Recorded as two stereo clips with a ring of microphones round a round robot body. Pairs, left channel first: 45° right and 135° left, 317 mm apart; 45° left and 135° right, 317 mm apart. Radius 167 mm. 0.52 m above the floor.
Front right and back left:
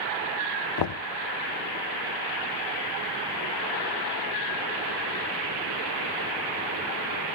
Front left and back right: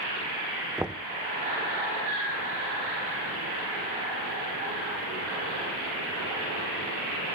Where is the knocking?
50° right, 0.7 m.